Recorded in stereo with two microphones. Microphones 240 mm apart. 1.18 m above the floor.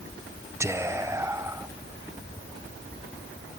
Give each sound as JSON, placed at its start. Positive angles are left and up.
{"t": 0.6, "sound": "whispering", "side_deg": -10, "distance_m": 0.6}